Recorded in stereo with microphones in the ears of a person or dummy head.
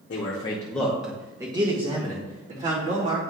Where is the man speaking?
45° left (ahead or behind), 0.9 m; by 3.2 s 45° right (ahead or behind), 2.5 m.